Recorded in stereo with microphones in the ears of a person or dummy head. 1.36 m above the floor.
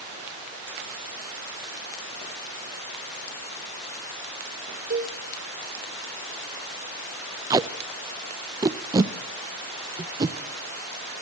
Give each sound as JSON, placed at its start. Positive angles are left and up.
{"t": 4.9, "sound": "a cowbell", "side_deg": -40, "distance_m": 3.5}
{"t": 7.5, "sound": "tape being pulled", "side_deg": -20, "distance_m": 0.8}